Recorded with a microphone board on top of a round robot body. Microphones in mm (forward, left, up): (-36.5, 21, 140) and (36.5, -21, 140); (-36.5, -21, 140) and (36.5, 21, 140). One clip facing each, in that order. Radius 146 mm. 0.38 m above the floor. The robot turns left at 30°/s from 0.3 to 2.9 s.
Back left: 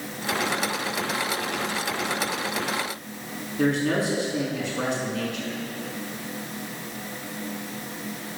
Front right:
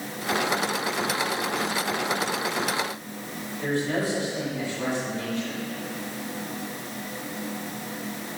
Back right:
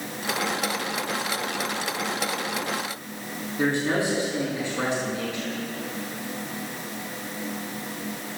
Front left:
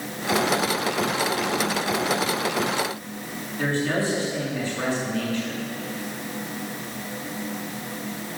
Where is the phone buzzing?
No phone buzzing in this recording.